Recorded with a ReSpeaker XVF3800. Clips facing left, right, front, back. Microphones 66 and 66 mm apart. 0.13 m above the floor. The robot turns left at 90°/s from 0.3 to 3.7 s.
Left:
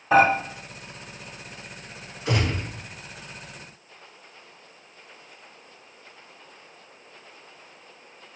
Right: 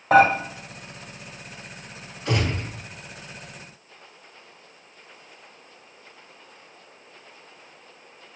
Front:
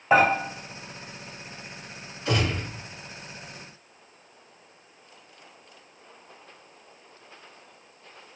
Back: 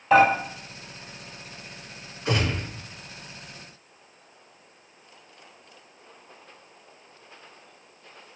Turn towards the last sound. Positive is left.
turn(degrees=20)